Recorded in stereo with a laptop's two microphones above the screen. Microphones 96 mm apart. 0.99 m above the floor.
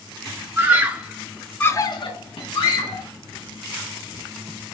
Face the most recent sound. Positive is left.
turn(degrees=65)  # may be behind; listen again after turning